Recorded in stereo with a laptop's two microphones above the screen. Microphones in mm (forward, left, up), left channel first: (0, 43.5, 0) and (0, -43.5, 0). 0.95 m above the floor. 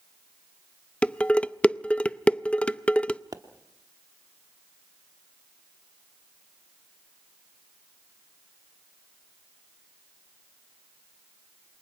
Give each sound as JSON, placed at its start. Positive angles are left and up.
{"t": 1.0, "sound": "dishes clattering", "side_deg": 15, "distance_m": 0.5}
{"t": 3.3, "sound": "a pop", "side_deg": -45, "distance_m": 1.0}